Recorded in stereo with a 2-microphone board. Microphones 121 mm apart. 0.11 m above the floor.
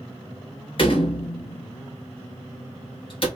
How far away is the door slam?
About 1.2 m.